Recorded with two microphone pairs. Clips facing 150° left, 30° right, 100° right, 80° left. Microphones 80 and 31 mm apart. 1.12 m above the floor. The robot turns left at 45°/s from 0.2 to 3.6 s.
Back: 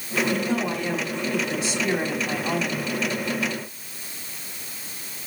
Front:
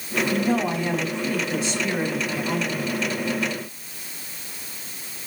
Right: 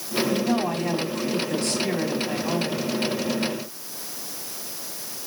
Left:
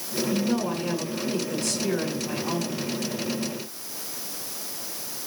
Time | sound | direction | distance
0.3 | a woman speaking | 65° right | 6.5 m